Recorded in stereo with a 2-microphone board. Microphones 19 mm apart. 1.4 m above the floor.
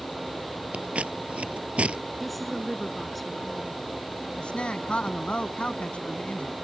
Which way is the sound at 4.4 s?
55° left (ahead or behind).